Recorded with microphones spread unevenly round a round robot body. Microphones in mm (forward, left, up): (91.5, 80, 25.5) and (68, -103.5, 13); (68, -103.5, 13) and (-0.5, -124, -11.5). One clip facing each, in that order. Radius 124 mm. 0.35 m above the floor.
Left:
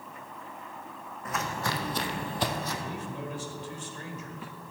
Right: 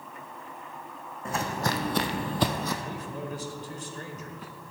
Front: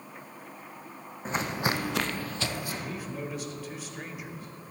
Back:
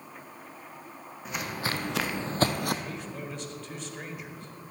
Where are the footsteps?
35° right, 1.4 m; by 2.7 s 130° right, 0.9 m.